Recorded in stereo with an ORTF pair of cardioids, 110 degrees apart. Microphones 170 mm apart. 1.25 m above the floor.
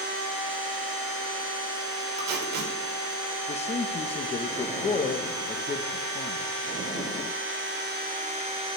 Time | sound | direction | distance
2.2 | tape being pulled | 70° right | 5 m
3.5 | a man speaking | 40° left | 1.5 m